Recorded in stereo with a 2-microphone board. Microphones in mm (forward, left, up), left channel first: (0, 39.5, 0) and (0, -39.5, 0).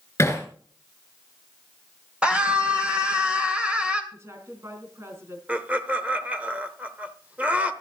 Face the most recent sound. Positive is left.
turn(degrees=-20)  # may be behind; listen again after turning